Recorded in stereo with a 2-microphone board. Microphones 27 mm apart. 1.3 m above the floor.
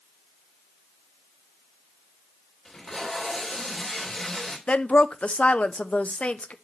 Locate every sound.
2.6 s tape being pulled: 20° left (ahead or behind), 2.5 m
4.7 s a woman speaking: 55° left (ahead or behind), 0.7 m